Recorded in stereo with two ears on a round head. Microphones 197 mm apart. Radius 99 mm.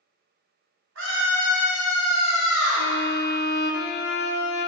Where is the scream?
60° right (ahead or behind), 2.5 m; by 2.9 s 70° right (ahead or behind), 5.5 m.